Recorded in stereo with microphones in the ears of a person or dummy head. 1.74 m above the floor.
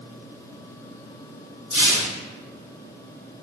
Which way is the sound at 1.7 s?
40° left (ahead or behind).